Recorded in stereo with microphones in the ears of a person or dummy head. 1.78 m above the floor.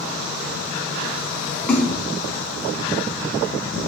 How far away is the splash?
About 0.9 m.